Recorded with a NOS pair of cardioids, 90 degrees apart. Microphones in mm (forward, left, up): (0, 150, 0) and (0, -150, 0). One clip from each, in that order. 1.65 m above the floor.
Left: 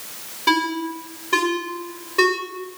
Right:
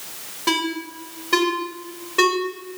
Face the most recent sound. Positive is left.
turn(degrees=-10)